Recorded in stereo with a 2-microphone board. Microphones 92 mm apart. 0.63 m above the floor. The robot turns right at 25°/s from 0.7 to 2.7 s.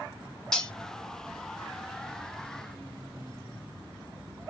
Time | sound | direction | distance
0.5 | cutlery clinking | 5° left (ahead or behind) | 0.6 m